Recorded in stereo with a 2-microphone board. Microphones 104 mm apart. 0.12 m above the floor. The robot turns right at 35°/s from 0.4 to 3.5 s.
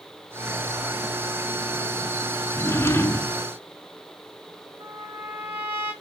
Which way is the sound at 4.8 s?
80° right.